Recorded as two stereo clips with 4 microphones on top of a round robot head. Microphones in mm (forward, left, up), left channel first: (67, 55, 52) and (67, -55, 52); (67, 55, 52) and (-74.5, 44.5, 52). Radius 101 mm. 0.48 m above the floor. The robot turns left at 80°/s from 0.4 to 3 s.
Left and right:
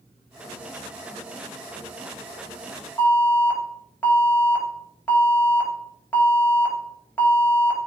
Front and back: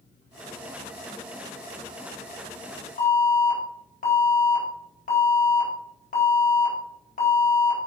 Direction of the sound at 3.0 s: 20° left.